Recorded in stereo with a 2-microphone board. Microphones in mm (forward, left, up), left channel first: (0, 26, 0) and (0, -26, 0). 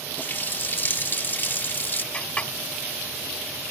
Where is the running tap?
40° left (ahead or behind).